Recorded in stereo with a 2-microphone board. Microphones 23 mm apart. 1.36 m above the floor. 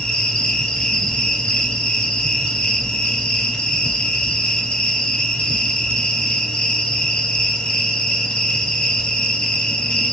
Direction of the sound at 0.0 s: 60° left (ahead or behind).